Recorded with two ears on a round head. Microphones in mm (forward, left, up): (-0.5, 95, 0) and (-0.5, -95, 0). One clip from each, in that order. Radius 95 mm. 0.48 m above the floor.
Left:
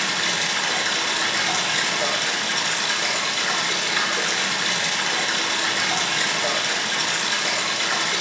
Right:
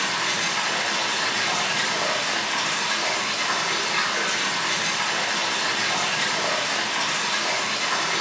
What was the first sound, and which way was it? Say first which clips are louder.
Running water: left 2 dB; 55° left (ahead or behind).